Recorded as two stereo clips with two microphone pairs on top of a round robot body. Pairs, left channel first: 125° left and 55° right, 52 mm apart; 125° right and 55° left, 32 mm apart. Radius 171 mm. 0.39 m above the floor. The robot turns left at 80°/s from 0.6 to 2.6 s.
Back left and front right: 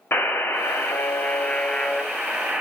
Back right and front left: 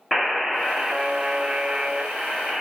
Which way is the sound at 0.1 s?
125° left.